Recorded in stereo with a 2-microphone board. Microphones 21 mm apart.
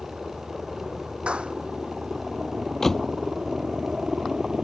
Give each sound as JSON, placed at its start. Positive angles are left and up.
{"t": 0.0, "sound": "a helicopter", "side_deg": -60}
{"t": 1.3, "sound": "a clap", "side_deg": -75}
{"t": 2.8, "sound": "a door slam", "side_deg": 20}